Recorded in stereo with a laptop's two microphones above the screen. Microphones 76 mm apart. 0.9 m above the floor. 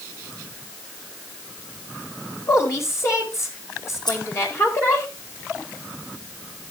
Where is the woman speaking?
40° left (ahead or behind), 4.5 m.